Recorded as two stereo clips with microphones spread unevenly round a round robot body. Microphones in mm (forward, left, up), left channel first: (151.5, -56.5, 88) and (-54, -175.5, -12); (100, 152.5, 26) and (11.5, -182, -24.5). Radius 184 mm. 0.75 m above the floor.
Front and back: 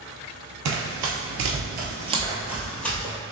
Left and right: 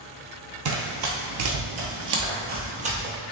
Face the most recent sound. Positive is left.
turn(degrees=-25)